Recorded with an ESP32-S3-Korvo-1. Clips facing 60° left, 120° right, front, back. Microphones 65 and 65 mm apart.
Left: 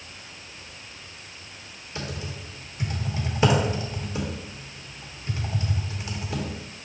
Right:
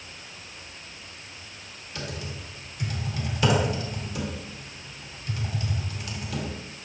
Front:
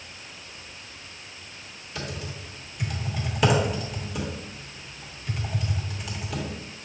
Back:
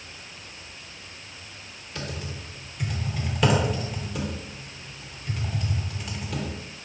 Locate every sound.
1.9 s typing on a keyboard: 85° left, 1.0 m